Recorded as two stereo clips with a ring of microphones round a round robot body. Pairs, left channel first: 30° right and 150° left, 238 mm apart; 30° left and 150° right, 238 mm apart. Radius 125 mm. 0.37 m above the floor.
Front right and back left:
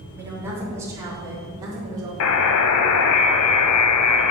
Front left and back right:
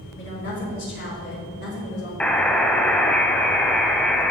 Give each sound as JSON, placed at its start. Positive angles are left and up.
{"t": 0.2, "sound": "a woman speaking", "azimuth_deg": 70, "distance_m": 3.5}
{"t": 2.2, "sound": "a buzzer", "azimuth_deg": -55, "distance_m": 0.6}